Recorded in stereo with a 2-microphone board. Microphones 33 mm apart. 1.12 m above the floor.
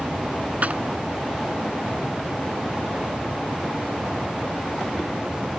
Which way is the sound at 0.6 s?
45° right (ahead or behind).